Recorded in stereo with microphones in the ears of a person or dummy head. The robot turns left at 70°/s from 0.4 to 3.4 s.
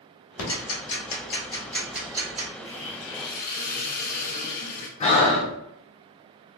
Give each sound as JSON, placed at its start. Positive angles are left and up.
{"t": 0.4, "sound": "ticking", "side_deg": 80, "distance_m": 1.3}
{"t": 2.6, "sound": "a hiss", "azimuth_deg": 105, "distance_m": 0.8}
{"t": 5.0, "sound": "breathing", "side_deg": 35, "distance_m": 0.6}